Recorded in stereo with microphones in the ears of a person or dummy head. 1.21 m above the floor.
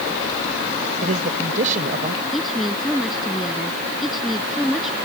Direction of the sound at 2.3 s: Centre (ahead or behind).